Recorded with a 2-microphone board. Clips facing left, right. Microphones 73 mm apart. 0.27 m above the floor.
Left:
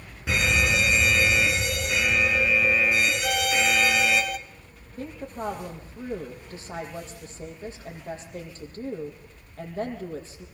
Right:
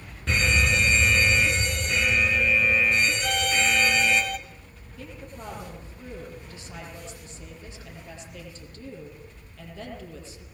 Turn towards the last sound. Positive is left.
turn(degrees=35)  # may be behind; listen again after turning